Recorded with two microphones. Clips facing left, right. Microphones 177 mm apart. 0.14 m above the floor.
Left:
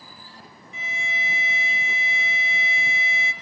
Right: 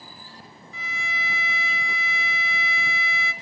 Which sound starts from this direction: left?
A violin, at 0.7 s.